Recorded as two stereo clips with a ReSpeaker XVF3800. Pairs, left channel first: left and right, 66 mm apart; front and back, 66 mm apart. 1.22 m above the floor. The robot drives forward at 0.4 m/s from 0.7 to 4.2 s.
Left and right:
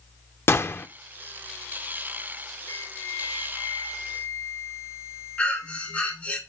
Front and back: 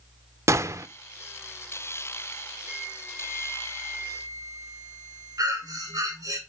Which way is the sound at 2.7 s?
120° left.